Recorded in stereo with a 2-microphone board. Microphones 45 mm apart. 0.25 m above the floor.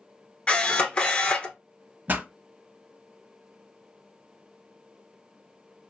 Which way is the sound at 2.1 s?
45° right (ahead or behind).